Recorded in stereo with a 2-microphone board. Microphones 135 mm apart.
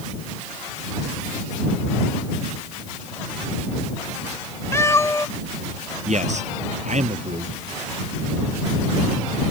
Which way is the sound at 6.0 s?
60° right (ahead or behind).